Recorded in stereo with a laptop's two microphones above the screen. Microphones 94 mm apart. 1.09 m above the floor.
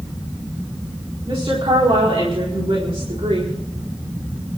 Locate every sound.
1.3 s a woman speaking: 80° right, 3 m; by 3.5 s 75° right (ahead or behind), 5.5 m